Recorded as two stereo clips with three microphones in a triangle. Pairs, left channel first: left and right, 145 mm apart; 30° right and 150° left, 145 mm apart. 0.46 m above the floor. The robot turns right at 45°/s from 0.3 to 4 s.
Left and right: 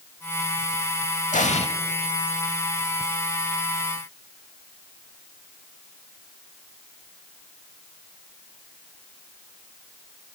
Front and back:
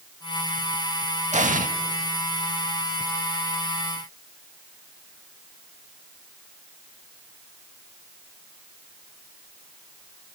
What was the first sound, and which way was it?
An explosion, 115° left.